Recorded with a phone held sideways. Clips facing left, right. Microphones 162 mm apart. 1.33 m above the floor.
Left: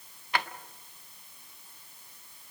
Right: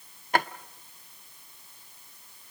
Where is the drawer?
45° right (ahead or behind), 0.6 m.